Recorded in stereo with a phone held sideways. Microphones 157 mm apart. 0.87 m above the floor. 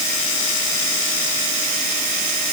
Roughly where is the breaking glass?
I don't hear breaking glass.